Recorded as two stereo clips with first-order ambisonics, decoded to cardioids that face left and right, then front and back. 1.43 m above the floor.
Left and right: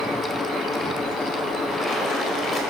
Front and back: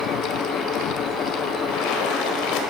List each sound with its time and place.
1.7 s a splash: 10° left, 4.5 m